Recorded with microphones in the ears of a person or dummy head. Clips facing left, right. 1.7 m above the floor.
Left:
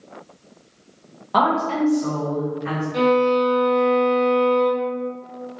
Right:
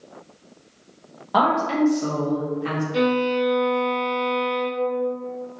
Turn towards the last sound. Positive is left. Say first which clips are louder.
# left 4 dB
turn(degrees=-10)  # may be behind; listen again after turning